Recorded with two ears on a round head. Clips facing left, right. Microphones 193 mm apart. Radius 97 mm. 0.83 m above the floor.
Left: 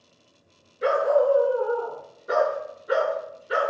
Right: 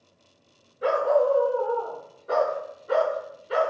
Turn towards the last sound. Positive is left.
turn(degrees=15)  # may be behind; listen again after turning